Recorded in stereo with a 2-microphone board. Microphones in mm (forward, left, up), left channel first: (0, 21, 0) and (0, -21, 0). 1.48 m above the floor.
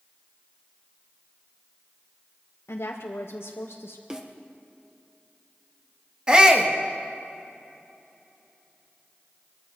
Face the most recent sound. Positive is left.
turn(degrees=-20)  # may be behind; listen again after turning